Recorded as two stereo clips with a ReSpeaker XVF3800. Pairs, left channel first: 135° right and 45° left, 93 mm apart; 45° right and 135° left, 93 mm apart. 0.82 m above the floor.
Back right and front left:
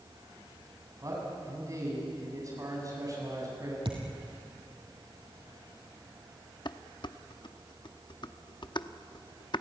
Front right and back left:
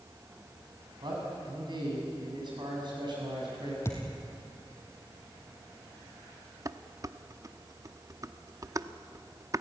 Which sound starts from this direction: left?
A man speaking, at 1.0 s.